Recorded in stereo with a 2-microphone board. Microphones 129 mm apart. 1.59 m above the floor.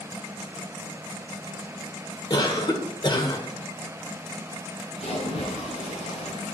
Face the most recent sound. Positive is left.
turn(degrees=60)  # may be behind; listen again after turning